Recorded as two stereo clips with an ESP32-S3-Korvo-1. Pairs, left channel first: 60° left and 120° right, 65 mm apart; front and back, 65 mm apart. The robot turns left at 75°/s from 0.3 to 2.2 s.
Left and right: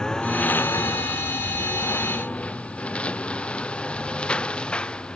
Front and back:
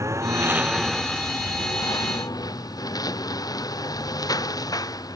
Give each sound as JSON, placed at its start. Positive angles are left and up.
{"t": 0.0, "sound": "a lawn mower", "azimuth_deg": 140}